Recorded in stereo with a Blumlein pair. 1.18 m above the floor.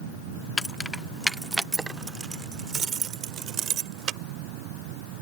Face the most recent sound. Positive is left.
turn(degrees=-30)